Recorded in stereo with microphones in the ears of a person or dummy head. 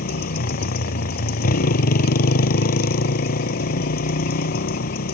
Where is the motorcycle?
50° left (ahead or behind).